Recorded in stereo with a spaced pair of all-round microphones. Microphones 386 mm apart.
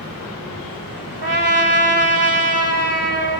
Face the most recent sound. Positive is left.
turn(degrees=-80)